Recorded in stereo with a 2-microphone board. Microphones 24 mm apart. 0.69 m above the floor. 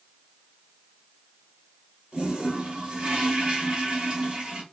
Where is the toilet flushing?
50° right (ahead or behind), 2 m.